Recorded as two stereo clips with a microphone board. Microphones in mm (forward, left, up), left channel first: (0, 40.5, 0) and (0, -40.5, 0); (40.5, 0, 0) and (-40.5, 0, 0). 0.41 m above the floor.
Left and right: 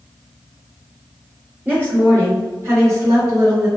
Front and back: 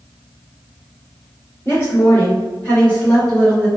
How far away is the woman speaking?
About 1.7 m.